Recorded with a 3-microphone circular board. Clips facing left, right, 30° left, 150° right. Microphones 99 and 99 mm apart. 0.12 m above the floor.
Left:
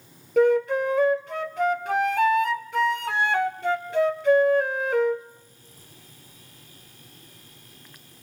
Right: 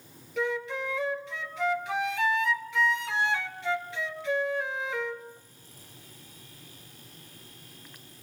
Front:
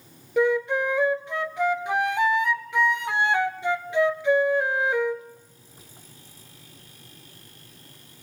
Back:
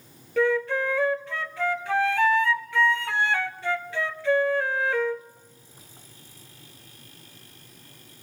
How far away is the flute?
About 0.8 m.